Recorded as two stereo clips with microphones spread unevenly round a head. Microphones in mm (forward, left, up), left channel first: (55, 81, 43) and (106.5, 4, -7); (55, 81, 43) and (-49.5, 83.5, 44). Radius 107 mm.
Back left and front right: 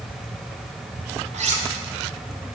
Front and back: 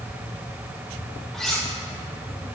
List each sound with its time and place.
1.3 s cutlery clinking: 90° right, 1.4 m